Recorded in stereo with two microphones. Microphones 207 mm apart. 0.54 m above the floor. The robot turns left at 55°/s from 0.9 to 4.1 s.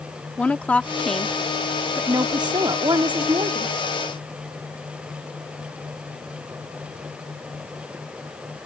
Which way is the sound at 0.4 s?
5° left (ahead or behind).